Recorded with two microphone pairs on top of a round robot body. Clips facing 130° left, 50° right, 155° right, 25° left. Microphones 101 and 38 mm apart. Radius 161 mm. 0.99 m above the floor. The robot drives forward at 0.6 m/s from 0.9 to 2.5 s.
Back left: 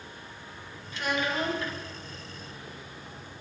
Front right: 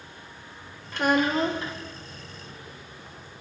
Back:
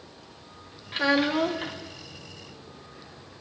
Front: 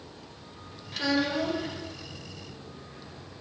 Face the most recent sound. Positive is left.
turn(degrees=-140)